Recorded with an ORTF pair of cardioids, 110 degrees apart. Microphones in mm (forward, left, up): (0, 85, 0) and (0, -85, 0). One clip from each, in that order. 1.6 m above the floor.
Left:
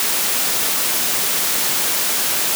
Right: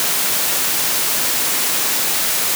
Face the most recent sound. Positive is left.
No sound to turn to.